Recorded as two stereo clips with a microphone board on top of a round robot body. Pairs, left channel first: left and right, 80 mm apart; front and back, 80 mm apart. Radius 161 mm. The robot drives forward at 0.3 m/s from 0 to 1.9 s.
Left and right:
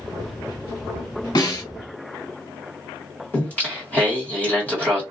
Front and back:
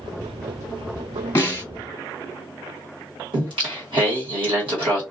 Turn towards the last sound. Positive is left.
turn(degrees=160)